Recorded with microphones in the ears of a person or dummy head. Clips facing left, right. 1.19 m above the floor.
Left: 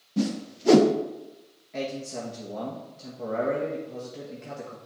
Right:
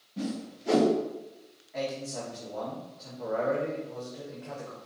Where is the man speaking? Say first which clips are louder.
Left 1 dB; 40° left (ahead or behind), 1.6 m.